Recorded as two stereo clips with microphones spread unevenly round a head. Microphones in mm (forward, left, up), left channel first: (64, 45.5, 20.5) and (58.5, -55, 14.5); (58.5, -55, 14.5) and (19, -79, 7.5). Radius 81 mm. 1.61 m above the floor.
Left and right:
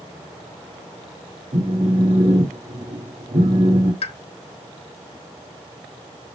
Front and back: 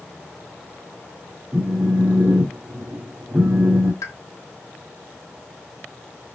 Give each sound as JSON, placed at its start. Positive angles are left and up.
{"t": 1.5, "sound": "a phone buzzing", "azimuth_deg": -100, "distance_m": 2.5}
{"t": 4.0, "sound": "a pop", "azimuth_deg": 70, "distance_m": 1.0}